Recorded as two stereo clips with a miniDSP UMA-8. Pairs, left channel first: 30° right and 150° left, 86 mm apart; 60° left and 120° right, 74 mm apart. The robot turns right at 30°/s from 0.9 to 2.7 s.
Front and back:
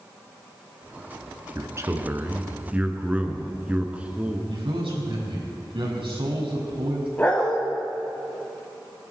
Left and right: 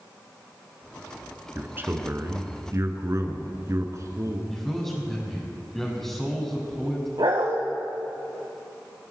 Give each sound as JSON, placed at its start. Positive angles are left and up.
{"t": 1.6, "sound": "a man speaking", "azimuth_deg": -175, "distance_m": 1.8}
{"t": 4.5, "sound": "a man speaking", "azimuth_deg": 145, "distance_m": 6.0}
{"t": 7.2, "sound": "a dog barking", "azimuth_deg": -100, "distance_m": 3.5}